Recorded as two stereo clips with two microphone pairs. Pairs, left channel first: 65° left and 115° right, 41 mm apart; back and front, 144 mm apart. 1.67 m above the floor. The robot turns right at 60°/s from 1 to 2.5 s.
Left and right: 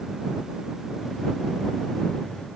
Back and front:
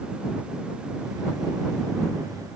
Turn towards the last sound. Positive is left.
No sound to turn to.